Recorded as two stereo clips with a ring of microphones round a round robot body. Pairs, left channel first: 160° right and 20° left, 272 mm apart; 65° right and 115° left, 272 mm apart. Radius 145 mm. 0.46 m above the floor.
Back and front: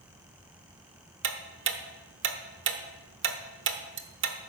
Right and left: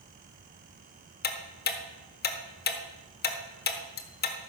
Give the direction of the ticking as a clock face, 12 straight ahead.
1 o'clock.